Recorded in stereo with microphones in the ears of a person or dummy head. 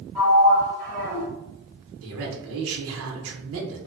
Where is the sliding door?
5° left (ahead or behind), 1.5 m.